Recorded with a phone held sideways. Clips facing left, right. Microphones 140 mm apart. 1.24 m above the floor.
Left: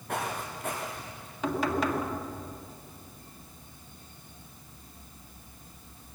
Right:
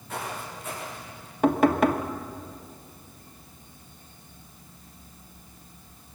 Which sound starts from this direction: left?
Footsteps, at 0.1 s.